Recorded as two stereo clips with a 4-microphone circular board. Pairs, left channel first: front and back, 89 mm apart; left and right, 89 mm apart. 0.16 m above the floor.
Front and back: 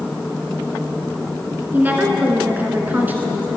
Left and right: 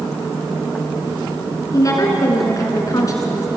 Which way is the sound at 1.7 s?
120° left.